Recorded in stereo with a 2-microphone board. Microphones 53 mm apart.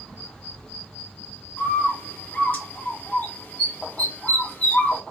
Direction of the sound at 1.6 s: 30° left (ahead or behind).